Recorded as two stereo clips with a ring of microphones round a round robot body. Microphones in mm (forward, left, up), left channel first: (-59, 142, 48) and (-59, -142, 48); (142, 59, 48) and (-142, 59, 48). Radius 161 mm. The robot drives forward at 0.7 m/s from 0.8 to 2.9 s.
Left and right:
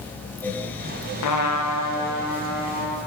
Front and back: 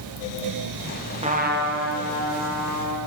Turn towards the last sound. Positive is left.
turn(degrees=155)